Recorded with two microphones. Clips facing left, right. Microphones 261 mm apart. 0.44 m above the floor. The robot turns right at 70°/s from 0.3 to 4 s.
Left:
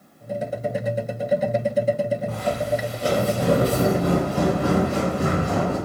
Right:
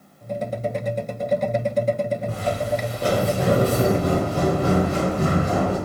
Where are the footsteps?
30° right (ahead or behind), 1.5 m; by 5.8 s 50° right (ahead or behind), 4 m.